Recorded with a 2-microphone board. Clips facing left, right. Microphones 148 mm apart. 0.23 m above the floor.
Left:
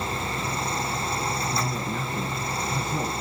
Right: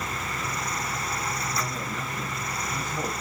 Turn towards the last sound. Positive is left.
turn(degrees=60)  # may be behind; listen again after turning